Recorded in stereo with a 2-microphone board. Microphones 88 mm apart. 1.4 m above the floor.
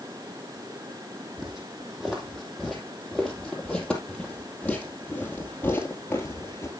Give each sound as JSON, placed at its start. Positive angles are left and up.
{"t": 1.4, "sound": "footsteps", "side_deg": -5, "distance_m": 4.0}